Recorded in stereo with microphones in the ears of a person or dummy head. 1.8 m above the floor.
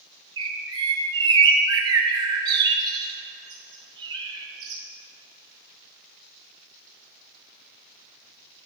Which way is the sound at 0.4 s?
20° right (ahead or behind).